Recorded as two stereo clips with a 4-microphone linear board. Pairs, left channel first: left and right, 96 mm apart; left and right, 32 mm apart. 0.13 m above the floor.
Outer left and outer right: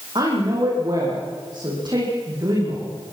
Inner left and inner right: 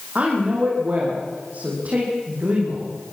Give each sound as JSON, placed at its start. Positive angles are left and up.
{"t": 0.1, "sound": "a woman speaking", "side_deg": -50, "distance_m": 8.0}